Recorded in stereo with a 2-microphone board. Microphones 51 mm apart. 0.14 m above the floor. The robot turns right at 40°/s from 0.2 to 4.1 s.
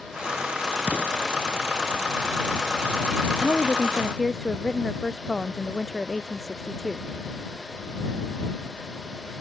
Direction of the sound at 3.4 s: 40° left (ahead or behind).